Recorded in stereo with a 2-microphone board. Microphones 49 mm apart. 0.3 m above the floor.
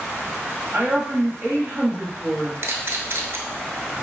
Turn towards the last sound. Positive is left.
turn(degrees=-60)  # may be behind; listen again after turning